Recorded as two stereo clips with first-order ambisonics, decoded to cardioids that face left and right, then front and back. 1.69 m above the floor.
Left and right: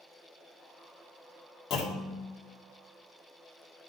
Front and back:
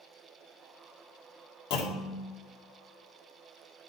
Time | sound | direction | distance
1.7 | a clunk | 30° left | 1.7 m